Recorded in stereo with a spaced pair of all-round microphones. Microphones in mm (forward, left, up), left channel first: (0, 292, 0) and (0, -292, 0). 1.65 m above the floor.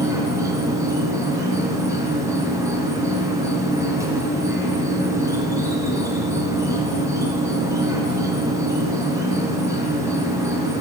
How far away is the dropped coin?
No dropped coin in this recording.